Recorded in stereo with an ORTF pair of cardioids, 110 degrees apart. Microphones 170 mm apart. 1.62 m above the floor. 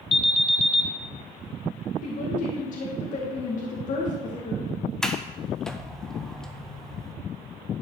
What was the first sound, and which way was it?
An alarm, 35° left.